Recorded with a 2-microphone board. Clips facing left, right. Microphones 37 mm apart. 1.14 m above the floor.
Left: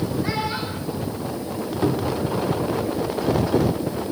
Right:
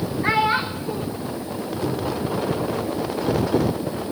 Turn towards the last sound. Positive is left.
turn(degrees=50)  # may be behind; listen again after turning